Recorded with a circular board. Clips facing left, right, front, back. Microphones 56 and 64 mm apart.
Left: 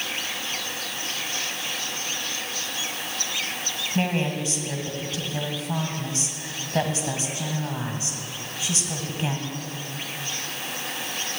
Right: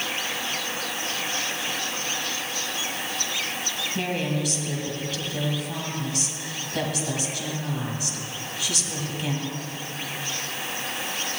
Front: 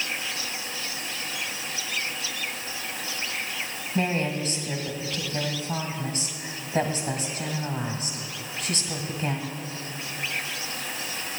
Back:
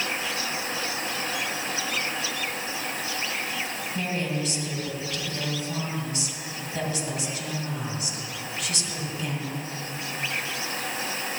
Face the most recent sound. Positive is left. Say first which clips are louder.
# left 3 dB, front 4 dB
turn(degrees=35)